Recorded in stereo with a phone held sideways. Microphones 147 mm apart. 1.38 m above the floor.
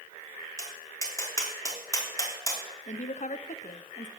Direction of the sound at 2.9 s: 55° left (ahead or behind).